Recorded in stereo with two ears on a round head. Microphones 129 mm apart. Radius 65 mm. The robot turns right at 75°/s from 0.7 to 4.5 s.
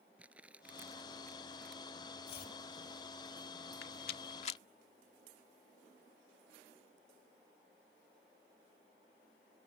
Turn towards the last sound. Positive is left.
turn(degrees=45)  # may be behind; listen again after turning